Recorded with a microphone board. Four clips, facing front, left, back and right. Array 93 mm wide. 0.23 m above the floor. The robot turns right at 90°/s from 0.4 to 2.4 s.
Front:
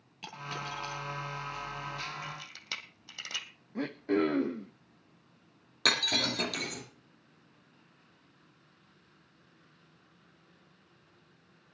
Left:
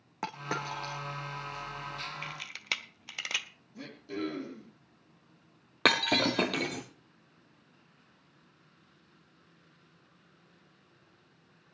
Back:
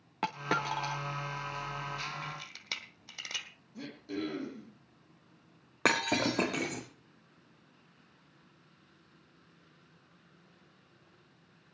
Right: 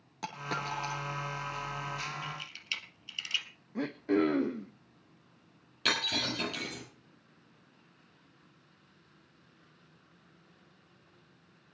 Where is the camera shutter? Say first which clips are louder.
Left 2 dB, back 1 dB; 75° left, 1.5 m; by 3.5 s 90° left, 1.5 m.